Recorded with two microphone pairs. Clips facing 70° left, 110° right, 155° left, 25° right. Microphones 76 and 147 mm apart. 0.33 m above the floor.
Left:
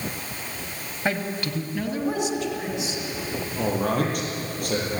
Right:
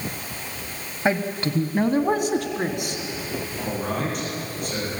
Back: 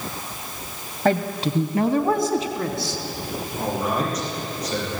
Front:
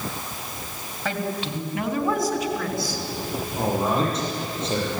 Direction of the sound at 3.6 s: 40° left.